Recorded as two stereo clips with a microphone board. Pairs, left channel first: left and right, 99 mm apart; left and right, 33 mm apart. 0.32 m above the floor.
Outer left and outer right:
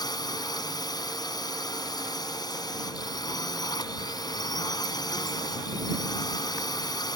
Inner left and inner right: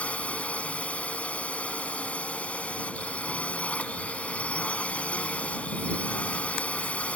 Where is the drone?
45° left (ahead or behind).